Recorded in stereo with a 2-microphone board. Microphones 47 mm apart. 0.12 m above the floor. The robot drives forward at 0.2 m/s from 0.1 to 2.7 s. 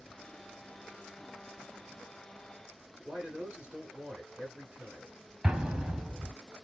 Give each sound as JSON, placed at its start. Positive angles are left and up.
{"t": 3.0, "sound": "a man speaking", "side_deg": -20, "distance_m": 1.7}
{"t": 5.4, "sound": "an explosion", "side_deg": -20, "distance_m": 0.5}